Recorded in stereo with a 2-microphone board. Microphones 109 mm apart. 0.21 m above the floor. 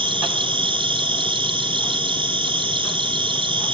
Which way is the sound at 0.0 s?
50° right (ahead or behind).